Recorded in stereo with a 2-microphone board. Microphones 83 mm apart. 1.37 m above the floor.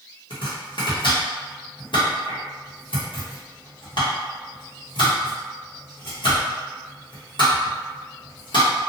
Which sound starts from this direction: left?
Chopping, at 0.3 s.